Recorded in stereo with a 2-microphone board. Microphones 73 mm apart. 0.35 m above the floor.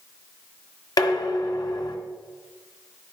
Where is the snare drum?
No snare drum in this recording.